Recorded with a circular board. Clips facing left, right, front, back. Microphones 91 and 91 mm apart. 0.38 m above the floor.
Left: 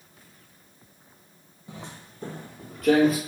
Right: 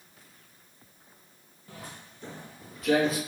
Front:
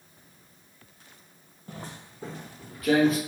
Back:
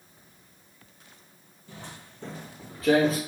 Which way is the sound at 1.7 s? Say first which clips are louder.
Left 3 dB, front 3 dB; 20° left.